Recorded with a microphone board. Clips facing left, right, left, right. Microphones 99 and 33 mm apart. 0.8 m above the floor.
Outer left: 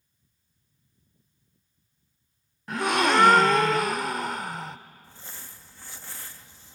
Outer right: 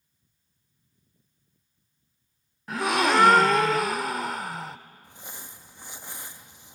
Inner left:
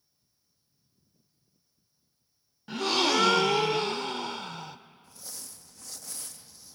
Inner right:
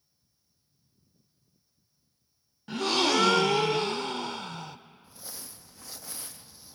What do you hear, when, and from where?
2.7 s a gasp: centre (ahead or behind), 0.5 m
5.0 s crumpling: 15° right (ahead or behind), 0.6 m